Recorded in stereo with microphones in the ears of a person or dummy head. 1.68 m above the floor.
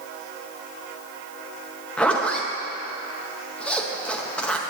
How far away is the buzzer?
No buzzer in this recording.